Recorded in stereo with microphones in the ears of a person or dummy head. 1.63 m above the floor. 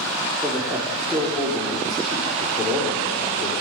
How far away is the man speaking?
About 4.5 m.